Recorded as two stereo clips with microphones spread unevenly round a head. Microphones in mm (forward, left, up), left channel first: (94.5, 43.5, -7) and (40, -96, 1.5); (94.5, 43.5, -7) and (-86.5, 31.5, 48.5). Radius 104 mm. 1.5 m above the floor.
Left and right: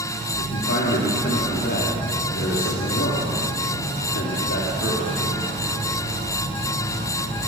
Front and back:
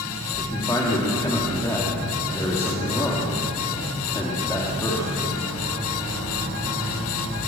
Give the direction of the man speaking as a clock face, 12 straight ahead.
9 o'clock.